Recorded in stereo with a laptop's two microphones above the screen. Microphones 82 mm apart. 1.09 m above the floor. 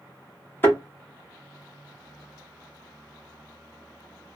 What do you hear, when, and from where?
0.6 s a thud: 25° left (ahead or behind), 1.1 m